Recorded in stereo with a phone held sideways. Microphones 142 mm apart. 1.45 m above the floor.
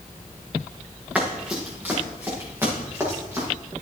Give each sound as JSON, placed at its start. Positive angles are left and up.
{"t": 1.1, "sound": "running footsteps", "side_deg": -10, "distance_m": 7.0}